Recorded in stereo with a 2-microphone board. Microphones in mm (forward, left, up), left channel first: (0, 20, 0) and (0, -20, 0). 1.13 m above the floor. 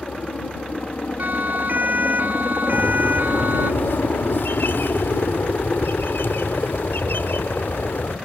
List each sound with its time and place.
0.0 s a helicopter: 25° left (ahead or behind); by 8.3 s 35° left (ahead or behind)
1.2 s a siren: 50° right (ahead or behind); by 3.7 s 55° right (ahead or behind)
2.7 s a bird: 70° left (ahead or behind)